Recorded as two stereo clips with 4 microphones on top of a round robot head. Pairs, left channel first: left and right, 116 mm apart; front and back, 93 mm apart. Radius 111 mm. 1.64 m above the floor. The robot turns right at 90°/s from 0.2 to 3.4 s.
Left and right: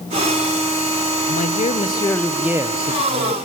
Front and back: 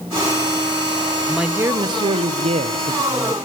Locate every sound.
1.3 s a man speaking: 85° left, 1.6 m; by 3.4 s 90° right, 1.6 m